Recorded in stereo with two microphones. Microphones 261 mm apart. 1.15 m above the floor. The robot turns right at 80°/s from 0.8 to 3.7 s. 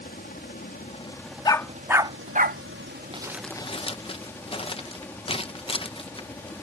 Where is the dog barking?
15° left (ahead or behind); by 2.6 s 40° right (ahead or behind).